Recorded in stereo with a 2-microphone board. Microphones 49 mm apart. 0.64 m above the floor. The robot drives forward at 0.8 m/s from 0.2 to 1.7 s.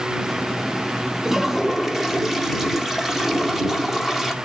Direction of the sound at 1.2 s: 10° right (ahead or behind).